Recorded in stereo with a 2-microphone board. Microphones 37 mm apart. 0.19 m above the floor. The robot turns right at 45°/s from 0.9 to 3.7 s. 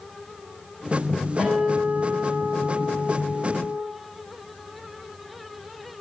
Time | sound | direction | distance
1.4 | a guitar | 165° left | 5.5 m